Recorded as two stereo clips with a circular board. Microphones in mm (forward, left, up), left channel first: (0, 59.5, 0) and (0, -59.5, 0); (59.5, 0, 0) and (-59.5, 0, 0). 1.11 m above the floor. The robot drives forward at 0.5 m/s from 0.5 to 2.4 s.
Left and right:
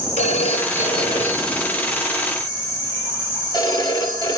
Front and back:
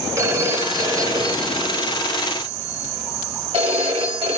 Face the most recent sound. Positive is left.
turn(degrees=145)